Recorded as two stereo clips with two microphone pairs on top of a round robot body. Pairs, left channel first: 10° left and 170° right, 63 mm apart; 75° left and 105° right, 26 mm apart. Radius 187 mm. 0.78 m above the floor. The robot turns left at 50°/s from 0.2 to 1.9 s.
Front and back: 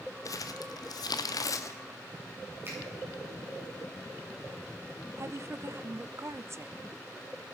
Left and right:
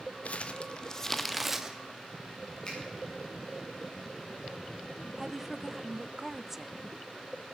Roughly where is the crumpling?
Ahead left.